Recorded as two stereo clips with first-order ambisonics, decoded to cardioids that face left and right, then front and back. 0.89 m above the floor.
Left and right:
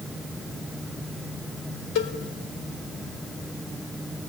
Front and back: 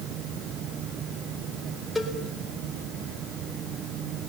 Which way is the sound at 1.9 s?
80° left.